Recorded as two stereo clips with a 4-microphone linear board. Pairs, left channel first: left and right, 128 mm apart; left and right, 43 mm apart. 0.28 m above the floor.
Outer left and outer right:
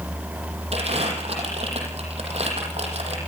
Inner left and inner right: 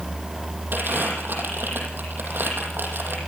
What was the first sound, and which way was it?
Crumpling, 50° right (ahead or behind).